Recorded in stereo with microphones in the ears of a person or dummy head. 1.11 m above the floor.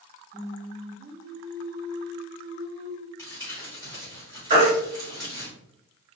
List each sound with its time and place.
0.3 s singing: 20° right (ahead or behind), 0.7 m
3.2 s crumpling: 10° left (ahead or behind), 1.3 m
4.5 s a baby crying: 35° right (ahead or behind), 1.7 m